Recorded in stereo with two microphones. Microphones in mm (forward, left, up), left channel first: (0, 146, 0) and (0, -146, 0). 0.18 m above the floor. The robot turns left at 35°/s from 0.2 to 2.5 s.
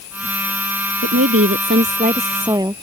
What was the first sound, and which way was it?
A woman speaking, 115° right.